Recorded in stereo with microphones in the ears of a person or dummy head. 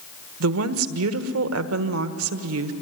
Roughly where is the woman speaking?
Right.